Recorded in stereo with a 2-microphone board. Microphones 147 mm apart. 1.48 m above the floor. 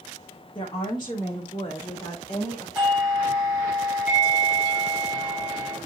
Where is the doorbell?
Centre (ahead or behind), 6.5 m.